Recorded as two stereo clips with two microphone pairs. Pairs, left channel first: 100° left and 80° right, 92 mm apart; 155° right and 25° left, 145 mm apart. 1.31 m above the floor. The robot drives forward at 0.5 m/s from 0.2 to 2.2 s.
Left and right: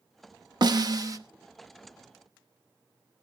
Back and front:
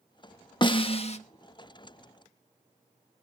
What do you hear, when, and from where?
0.6 s a snare drum: 110° right, 0.9 m; by 1.2 s 125° right, 1.0 m